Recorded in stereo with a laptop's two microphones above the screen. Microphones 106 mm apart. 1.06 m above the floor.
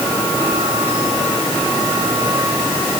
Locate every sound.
Only background noise.